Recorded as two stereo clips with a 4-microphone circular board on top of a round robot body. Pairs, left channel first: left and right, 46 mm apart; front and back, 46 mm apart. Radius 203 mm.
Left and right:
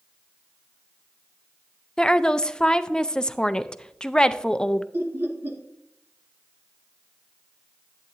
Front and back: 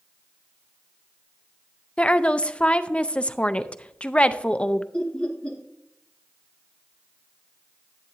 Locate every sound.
2.0 s a woman speaking: 35° left, 0.7 m
4.9 s laughter: 65° right, 2.5 m